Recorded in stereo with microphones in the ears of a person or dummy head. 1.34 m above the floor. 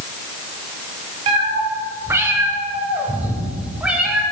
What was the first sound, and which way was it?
A cat meowing, 20° right (ahead or behind).